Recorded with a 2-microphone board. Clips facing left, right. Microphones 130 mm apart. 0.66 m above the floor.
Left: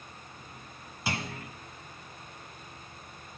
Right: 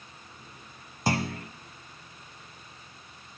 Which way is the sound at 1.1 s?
40° right (ahead or behind).